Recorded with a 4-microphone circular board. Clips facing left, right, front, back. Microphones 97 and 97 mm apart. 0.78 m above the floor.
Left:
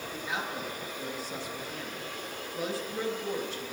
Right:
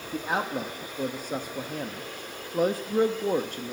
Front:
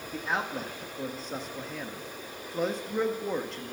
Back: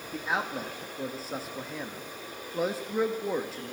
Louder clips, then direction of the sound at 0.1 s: Right 8 dB, even; 95° right.